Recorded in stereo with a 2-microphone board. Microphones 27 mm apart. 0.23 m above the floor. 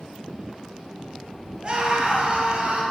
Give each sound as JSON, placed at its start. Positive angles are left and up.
{"t": 1.6, "sound": "a scream", "side_deg": -35, "distance_m": 3.5}